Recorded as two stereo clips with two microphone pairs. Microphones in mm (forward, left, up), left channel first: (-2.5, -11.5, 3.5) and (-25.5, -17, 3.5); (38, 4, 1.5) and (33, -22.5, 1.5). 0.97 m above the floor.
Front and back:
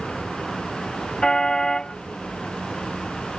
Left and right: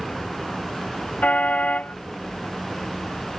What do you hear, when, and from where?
1.2 s a car horn: 70° left